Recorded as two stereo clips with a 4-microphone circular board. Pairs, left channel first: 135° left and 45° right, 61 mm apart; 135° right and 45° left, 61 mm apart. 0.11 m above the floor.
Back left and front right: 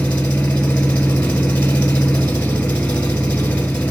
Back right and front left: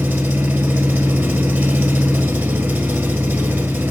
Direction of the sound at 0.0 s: 75° left.